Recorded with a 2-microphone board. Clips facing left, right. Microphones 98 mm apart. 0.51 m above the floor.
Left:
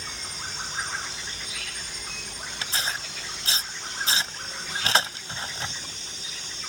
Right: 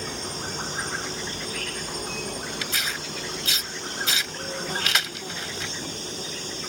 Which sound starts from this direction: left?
Tearing paper, at 2.6 s.